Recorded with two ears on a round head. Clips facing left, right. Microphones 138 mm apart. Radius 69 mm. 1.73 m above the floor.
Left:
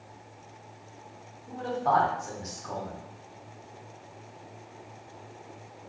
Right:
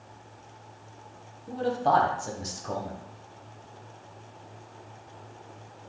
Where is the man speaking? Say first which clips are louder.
Right 2 dB; 35° right (ahead or behind), 0.8 m.